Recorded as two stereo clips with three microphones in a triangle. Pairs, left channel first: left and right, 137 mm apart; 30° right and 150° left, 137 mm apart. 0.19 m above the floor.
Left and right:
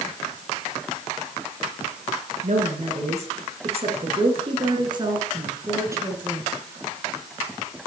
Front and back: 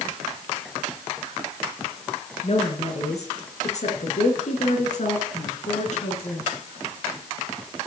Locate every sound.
2.4 s a woman speaking: 65° right, 3 m; by 6.5 s 15° right, 2.5 m